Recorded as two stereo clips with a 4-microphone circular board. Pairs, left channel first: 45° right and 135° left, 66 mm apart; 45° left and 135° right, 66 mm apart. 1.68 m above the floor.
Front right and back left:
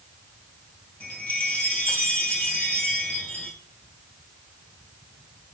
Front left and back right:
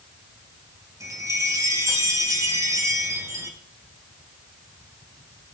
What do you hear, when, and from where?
1.0 s a chime: 110° right, 3 m